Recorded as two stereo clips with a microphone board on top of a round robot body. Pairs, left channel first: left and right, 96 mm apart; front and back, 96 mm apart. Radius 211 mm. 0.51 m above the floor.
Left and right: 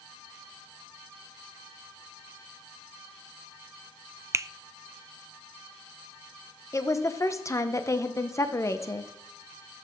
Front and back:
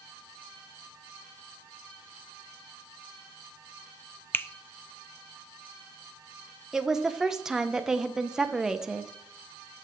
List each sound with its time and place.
4.3 s a finger snap: 50° right, 0.5 m
6.7 s a woman speaking: 100° left, 0.8 m